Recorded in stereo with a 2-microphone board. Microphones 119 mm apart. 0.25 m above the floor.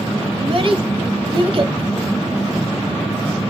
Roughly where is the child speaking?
Right.